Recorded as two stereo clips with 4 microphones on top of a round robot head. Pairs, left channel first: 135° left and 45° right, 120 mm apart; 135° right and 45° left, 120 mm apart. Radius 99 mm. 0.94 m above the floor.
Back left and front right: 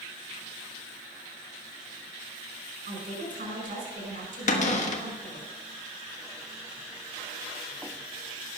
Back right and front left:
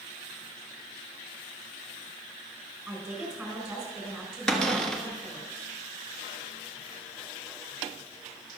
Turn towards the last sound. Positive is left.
turn(degrees=140)